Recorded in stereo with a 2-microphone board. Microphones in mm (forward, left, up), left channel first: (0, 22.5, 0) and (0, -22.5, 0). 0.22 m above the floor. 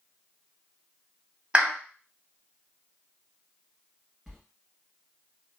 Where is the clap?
25° right (ahead or behind), 0.8 m.